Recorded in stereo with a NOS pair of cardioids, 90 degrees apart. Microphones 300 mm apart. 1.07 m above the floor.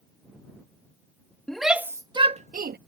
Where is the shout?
Straight ahead; by 2.8 s 35° right.